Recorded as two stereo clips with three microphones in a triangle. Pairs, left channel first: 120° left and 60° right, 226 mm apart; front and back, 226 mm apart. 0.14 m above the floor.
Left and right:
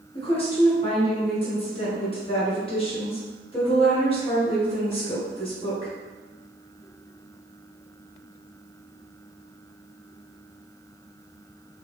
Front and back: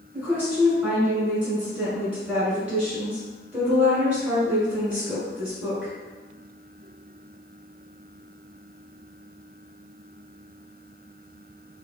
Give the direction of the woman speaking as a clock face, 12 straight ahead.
9 o'clock.